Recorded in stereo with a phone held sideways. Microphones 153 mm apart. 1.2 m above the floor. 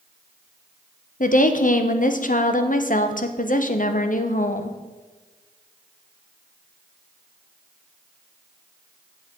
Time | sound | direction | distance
1.2 | a woman speaking | 60° left (ahead or behind) | 0.8 m